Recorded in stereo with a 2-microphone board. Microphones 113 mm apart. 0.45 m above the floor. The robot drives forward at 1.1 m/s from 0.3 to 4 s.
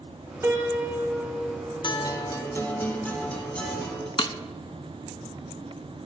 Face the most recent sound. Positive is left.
turn(degrees=50)  # may be behind; listen again after turning